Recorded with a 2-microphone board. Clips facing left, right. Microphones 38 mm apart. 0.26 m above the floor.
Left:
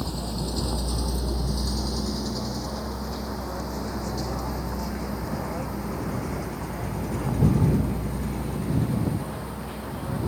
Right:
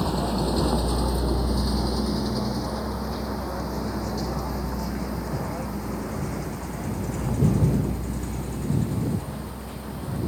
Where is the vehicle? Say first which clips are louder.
Right 6 dB; 30° right (ahead or behind); by 10.3 s 20° left (ahead or behind).